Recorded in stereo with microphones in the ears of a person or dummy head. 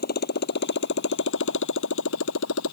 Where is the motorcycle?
55° left (ahead or behind); by 2.7 s 85° left.